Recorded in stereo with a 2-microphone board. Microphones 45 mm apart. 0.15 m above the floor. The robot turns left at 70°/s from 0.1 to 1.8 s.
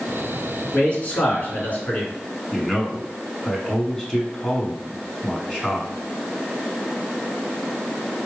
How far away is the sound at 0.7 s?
About 1.4 m.